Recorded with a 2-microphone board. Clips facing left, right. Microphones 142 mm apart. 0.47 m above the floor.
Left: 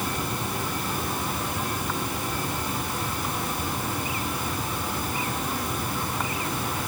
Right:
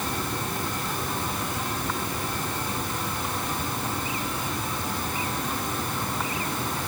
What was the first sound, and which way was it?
Only background noise.